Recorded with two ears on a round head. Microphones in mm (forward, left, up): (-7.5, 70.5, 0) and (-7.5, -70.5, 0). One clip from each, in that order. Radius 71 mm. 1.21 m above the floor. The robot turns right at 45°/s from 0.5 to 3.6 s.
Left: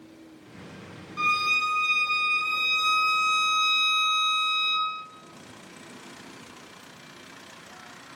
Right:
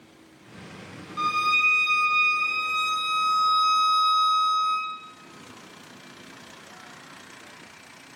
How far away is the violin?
About 0.8 m.